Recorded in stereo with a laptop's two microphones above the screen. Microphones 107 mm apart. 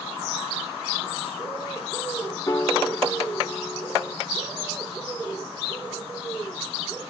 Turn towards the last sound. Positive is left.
turn(degrees=30)  # may be behind; listen again after turning